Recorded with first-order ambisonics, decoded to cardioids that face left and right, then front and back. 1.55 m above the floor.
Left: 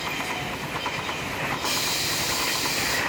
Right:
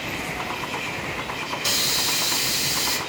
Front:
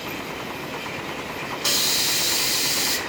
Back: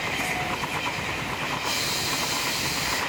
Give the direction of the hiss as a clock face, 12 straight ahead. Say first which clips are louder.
Right 6 dB, front 9 dB; 1 o'clock.